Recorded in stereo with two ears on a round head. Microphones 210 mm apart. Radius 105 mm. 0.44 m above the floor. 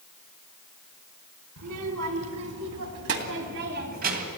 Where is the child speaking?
80° right, 3 m; by 4.3 s 35° right (ahead or behind), 2 m.